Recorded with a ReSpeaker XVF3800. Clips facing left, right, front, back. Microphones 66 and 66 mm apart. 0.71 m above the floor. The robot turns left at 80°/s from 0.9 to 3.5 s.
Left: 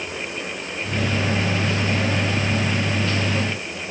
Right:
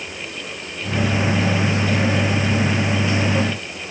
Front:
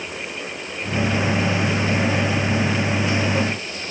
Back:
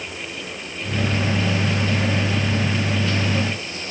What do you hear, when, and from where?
Only background noise.